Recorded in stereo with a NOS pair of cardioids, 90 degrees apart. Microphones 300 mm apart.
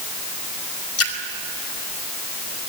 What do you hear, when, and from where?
1.0 s a splash: 55° left, 3 m